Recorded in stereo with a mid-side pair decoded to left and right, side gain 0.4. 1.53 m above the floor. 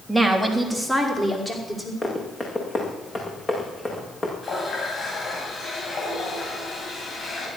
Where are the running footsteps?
25° left, 7 m.